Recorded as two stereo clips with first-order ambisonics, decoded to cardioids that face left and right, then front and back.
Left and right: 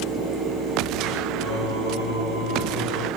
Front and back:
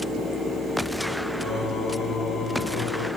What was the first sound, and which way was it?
Singing, 95° left.